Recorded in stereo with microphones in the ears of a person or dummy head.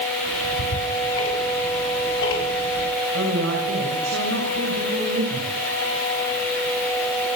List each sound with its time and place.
0.2 s ticking: 80° left, 6.5 m
3.1 s a woman speaking: 70° right (ahead or behind), 6.5 m